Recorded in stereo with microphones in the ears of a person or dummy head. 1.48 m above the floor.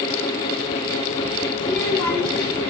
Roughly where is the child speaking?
Centre.